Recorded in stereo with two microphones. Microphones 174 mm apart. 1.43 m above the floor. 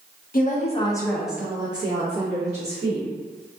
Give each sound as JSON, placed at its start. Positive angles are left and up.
{"t": 0.3, "sound": "a woman speaking", "side_deg": 55, "distance_m": 0.6}